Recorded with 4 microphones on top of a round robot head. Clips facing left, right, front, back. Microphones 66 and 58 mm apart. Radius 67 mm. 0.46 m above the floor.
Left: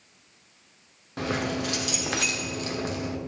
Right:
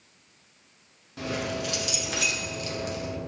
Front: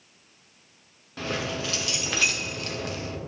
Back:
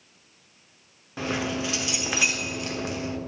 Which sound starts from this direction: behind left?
Keys jangling, at 1.2 s.